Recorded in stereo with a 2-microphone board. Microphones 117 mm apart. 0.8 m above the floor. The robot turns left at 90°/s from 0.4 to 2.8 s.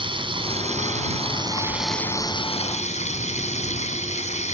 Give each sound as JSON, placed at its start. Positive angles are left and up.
{"t": 0.0, "sound": "running water", "azimuth_deg": -50}